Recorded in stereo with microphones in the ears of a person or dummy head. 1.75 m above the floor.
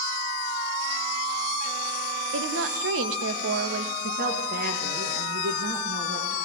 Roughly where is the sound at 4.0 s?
Right.